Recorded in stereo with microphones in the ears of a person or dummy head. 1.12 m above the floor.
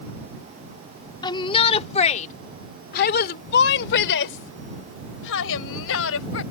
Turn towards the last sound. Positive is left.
turn(degrees=75)  # may be behind; listen again after turning